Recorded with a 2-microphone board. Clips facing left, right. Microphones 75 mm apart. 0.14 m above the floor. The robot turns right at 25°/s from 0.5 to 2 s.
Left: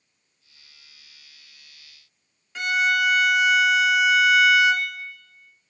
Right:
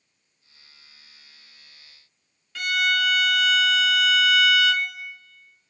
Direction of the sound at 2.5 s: 20° left (ahead or behind).